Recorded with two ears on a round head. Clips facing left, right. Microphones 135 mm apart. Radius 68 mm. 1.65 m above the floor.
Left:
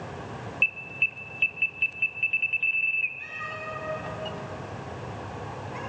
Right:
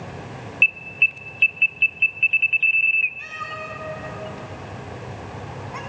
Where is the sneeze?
I don't hear a sneeze.